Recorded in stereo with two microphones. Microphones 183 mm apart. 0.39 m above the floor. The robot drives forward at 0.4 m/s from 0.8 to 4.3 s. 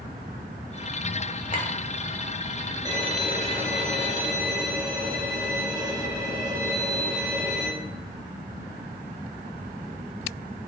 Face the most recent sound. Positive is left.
turn(degrees=-15)  # may be behind; listen again after turning